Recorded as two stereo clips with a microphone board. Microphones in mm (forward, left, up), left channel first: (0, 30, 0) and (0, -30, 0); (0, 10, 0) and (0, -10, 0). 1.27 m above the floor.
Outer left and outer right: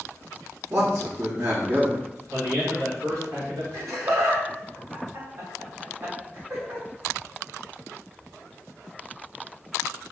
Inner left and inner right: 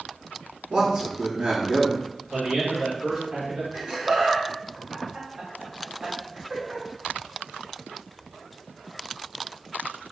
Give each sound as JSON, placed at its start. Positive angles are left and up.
{"t": 0.7, "sound": "a man speaking", "side_deg": -50, "distance_m": 2.0}
{"t": 2.3, "sound": "a man speaking", "side_deg": -85, "distance_m": 1.6}
{"t": 3.7, "sound": "laughter", "side_deg": -75, "distance_m": 2.0}